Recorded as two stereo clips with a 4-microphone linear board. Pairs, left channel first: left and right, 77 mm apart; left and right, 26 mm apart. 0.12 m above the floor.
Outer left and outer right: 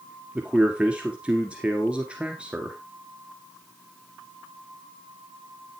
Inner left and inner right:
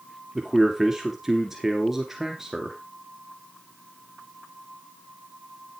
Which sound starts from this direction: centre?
A man speaking, at 0.3 s.